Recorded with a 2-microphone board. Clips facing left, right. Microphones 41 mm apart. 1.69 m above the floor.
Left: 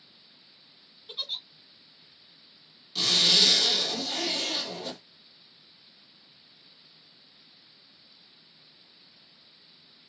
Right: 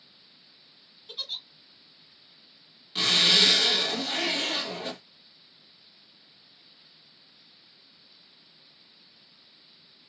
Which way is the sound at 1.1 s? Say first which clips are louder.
Left 1 dB; 10° left (ahead or behind).